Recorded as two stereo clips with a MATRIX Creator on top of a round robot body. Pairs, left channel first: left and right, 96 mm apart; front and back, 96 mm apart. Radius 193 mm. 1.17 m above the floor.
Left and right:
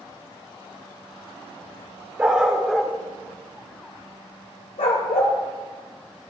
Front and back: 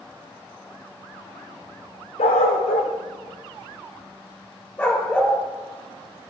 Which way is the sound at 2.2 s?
20° right.